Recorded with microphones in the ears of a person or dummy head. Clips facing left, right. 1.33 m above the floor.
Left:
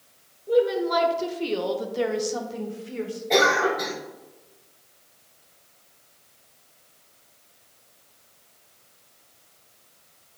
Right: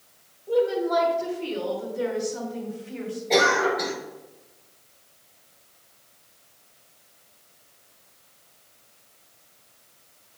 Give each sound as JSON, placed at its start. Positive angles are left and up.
{"t": 0.5, "sound": "a woman speaking", "side_deg": 30, "distance_m": 1.9}
{"t": 3.3, "sound": "a cough", "side_deg": 5, "distance_m": 3.5}